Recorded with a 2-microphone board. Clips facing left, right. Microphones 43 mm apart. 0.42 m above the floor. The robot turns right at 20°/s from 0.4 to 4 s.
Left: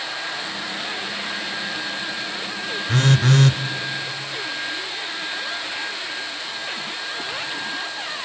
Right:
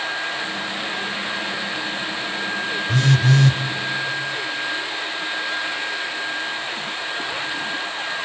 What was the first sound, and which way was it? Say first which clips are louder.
A phone buzzing: left 1 dB; 50° left (ahead or behind).